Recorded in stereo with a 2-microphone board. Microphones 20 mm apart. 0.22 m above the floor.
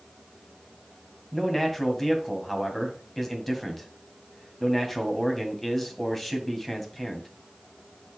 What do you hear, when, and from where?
1.3 s a man speaking: 5° left (ahead or behind), 1.7 m